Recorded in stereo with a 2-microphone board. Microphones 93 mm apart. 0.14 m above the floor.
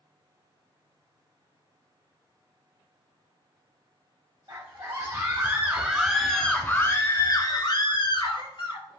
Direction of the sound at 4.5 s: 40° right (ahead or behind).